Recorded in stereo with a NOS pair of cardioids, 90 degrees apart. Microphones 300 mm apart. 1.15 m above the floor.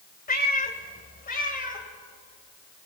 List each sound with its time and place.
0.3 s a cat meowing: 30° left, 2.5 m